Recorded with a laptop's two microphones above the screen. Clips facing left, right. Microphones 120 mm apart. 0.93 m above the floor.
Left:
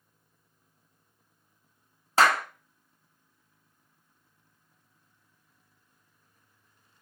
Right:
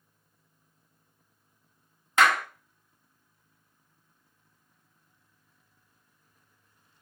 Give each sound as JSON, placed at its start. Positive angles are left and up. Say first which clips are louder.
{"t": 2.2, "sound": "a clap", "louder": "left 1 dB", "side_deg": 30, "distance_m": 0.6}